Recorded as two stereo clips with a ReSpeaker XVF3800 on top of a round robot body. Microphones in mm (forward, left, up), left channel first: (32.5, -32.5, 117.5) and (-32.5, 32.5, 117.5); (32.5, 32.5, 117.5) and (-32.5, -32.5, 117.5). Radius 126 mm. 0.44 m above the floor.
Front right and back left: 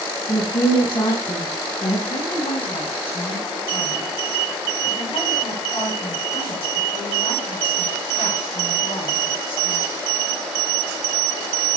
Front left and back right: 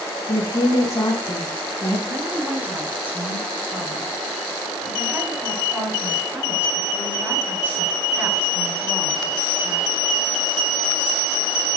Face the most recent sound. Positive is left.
turn(degrees=-65)